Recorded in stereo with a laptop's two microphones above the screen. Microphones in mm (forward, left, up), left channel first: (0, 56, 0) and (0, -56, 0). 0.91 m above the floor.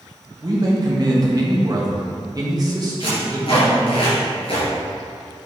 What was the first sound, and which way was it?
A man speaking, 40° right (ahead or behind).